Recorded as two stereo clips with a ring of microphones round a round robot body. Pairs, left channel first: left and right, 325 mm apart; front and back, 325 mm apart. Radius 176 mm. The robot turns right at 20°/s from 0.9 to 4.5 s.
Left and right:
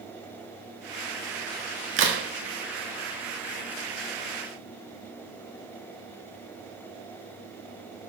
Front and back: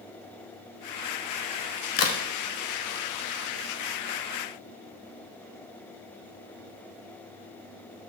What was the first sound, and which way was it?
A crack, 40° right.